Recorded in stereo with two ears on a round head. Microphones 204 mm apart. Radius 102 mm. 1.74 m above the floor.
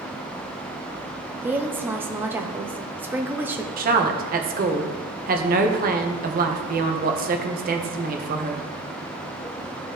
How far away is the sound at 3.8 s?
About 1.2 m.